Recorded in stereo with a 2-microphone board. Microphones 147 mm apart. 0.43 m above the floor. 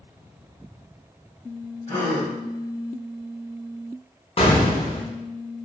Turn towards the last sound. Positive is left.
turn(degrees=40)  # may be behind; listen again after turning